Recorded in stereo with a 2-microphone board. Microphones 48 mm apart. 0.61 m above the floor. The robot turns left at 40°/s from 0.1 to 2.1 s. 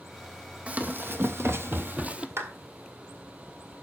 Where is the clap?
65° right (ahead or behind), 1.7 m.